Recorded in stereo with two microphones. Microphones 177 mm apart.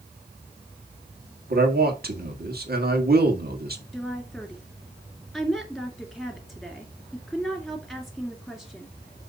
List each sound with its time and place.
1.5 s a man speaking: 60° right (ahead or behind), 1.8 m
3.9 s a woman speaking: centre (ahead or behind), 2 m